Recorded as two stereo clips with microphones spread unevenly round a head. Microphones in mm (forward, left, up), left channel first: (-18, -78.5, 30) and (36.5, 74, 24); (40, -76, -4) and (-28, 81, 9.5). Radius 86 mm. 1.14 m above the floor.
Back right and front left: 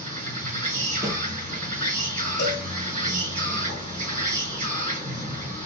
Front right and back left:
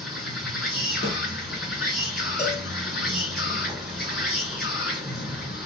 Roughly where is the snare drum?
Ahead.